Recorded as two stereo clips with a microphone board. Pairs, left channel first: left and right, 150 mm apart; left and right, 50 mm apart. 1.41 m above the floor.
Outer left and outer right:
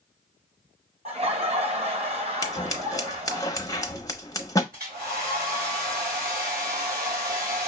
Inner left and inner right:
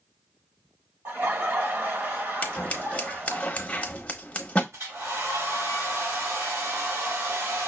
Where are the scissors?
25° left (ahead or behind), 0.8 m.